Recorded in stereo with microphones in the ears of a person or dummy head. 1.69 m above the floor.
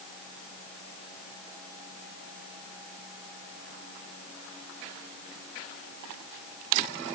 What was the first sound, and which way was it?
Only background noise.